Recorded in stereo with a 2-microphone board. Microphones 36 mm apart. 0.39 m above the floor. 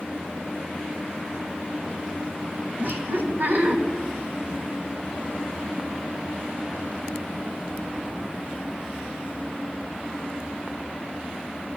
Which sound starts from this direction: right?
Laughter, at 2.8 s.